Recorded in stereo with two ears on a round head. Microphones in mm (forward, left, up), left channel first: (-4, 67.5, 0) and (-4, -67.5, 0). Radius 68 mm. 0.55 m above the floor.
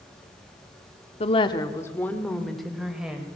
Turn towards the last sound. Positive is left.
turn(degrees=-5)  # may be behind; listen again after turning